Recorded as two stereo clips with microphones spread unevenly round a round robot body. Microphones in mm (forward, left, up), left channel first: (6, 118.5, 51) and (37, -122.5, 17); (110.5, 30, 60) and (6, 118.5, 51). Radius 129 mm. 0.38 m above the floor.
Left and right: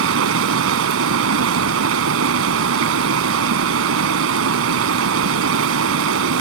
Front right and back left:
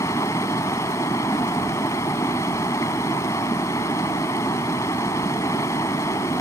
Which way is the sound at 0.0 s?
115° right.